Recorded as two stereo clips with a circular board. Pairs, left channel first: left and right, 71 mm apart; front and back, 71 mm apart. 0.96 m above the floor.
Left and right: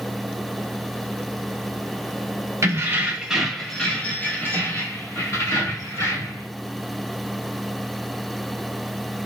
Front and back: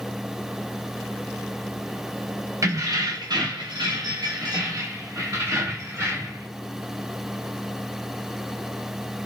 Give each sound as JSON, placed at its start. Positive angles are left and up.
{"t": 2.6, "sound": "keys jangling", "azimuth_deg": -135, "distance_m": 0.7}